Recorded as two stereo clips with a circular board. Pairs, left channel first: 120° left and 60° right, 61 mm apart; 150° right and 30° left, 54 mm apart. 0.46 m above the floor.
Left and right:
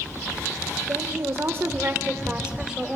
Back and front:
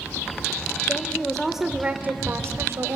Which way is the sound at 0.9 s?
95° right.